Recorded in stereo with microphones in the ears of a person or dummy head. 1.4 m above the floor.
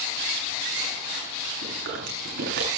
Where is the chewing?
60° right (ahead or behind), 10 m.